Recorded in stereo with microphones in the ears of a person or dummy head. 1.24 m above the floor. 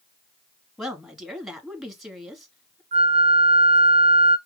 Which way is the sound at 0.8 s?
Centre (ahead or behind).